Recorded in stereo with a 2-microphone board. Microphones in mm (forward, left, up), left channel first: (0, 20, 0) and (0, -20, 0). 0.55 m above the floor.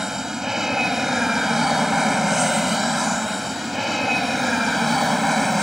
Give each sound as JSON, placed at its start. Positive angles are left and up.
{"t": 0.0, "sound": "an aircraft", "side_deg": -10}